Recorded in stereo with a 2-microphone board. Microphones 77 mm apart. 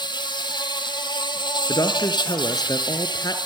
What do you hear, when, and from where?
0.0 s an insect: 75° left (ahead or behind), 2 m
1.7 s a woman speaking: 55° left (ahead or behind), 2.5 m